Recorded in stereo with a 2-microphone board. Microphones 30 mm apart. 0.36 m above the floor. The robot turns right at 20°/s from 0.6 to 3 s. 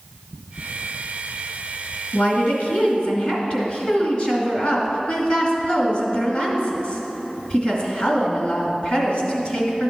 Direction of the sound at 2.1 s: 50° left (ahead or behind).